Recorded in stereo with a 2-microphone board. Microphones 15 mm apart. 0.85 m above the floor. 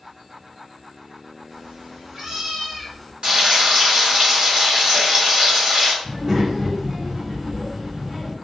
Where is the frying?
65° right (ahead or behind), 1.3 m.